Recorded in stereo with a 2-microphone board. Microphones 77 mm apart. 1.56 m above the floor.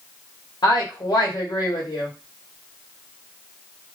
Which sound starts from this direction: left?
A woman speaking, at 0.6 s.